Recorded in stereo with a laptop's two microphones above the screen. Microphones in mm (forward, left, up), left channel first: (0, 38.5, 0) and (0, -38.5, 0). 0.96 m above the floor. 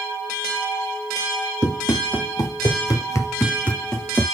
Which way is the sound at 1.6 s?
55° left (ahead or behind).